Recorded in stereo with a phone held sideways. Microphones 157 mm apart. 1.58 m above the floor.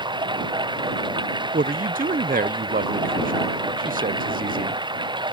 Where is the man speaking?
65° right (ahead or behind).